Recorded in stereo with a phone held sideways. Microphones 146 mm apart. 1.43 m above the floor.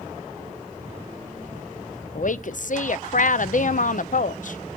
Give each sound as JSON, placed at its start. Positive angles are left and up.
{"t": 2.1, "sound": "a woman speaking", "side_deg": 60, "distance_m": 0.6}